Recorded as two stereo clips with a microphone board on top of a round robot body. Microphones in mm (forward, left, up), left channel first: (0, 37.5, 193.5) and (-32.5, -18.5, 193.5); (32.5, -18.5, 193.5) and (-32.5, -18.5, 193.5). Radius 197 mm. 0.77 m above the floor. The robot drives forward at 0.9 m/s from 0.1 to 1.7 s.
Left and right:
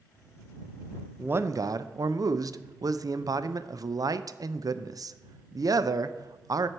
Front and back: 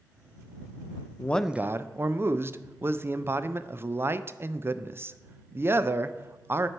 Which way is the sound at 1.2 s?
50° right.